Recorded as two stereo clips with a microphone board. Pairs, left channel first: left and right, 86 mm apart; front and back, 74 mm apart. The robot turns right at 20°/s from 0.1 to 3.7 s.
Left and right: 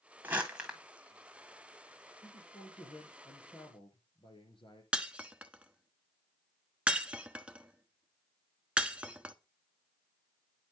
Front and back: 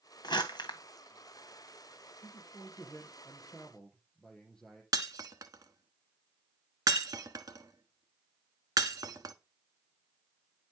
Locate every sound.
0.2 s crumpling: 15° right, 1.8 m; by 0.8 s 5° right, 1.8 m
2.2 s a man speaking: 55° left, 6.5 m; by 4.8 s 85° left, 6.5 m
4.9 s breaking glass: 165° right, 1.0 m